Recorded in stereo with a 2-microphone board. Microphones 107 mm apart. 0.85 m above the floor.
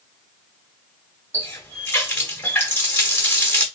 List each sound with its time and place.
1.3 s a running tap: 20° left (ahead or behind), 1.5 m